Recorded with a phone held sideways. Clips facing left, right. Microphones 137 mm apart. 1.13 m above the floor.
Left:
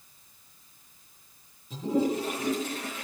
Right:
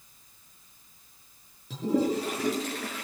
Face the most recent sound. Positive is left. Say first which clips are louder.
# right 1 dB
turn(degrees=-80)